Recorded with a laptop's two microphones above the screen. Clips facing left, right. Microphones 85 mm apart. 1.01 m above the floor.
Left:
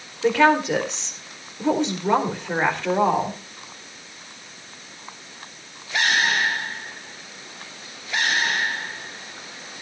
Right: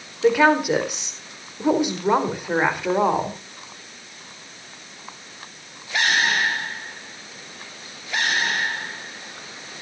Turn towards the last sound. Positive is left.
turn(degrees=-10)  # may be behind; listen again after turning